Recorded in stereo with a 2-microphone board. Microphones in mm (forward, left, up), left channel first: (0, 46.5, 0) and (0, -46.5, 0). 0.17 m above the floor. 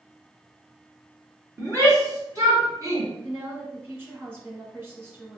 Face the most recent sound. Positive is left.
turn(degrees=-25)  # may be behind; listen again after turning